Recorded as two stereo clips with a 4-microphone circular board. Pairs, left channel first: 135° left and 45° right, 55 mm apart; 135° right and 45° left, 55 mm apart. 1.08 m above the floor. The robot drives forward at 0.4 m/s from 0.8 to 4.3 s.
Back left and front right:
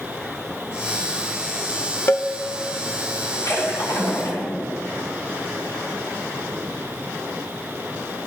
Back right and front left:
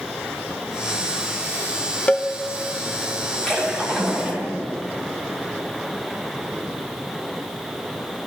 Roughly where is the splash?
Behind left.